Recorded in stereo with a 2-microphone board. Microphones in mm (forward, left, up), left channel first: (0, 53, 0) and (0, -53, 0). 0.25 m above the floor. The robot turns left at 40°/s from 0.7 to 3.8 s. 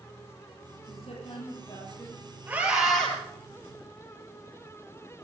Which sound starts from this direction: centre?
A scream, at 2.5 s.